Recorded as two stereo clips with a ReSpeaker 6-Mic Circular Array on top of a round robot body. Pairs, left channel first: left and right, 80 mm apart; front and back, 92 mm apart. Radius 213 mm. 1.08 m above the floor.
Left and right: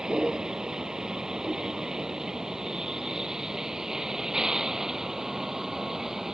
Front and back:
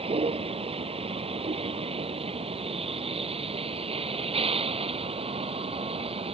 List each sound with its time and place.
0.0 s a vehicle: 170° right; by 6.3 s 175° right